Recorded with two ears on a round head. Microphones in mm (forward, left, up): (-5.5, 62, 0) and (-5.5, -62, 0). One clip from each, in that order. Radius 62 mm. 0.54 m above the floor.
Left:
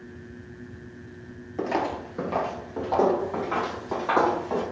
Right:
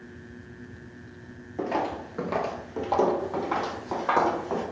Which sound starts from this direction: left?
Footsteps, at 1.6 s.